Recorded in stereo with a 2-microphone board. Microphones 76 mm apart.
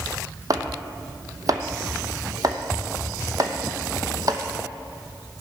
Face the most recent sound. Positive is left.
turn(degrees=-50)  # may be behind; listen again after turning